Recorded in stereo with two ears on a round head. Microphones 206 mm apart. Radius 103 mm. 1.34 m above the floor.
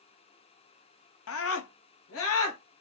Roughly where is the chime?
No chime in this recording.